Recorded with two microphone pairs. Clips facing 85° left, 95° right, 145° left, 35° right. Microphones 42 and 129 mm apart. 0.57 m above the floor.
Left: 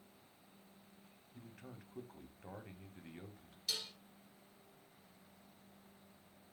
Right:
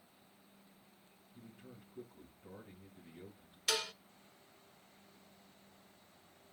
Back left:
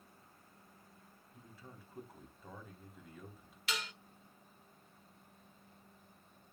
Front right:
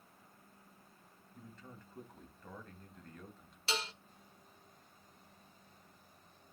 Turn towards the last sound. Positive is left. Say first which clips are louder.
# right 7 dB, front right 3 dB
turn(degrees=-95)